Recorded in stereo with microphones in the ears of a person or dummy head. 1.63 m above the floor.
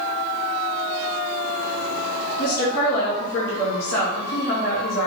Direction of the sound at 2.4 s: 70° left (ahead or behind).